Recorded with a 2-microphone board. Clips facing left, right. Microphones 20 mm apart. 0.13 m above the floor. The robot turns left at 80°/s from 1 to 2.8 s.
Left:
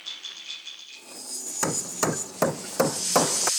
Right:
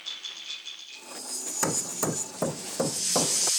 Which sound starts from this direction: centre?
Hammering, at 1.6 s.